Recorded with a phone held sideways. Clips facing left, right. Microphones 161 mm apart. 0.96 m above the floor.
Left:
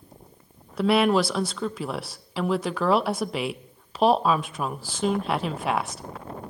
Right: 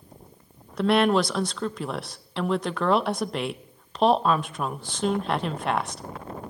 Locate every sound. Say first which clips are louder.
0.8 s a woman speaking: even; 5° left (ahead or behind), 0.6 m